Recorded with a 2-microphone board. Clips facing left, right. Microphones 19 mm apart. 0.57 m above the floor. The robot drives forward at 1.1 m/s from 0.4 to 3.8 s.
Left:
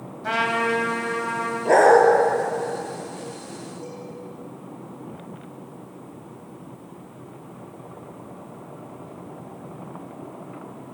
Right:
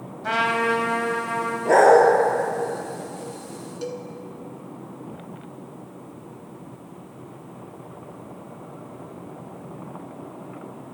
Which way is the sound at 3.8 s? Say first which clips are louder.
Right 5 dB; 85° right.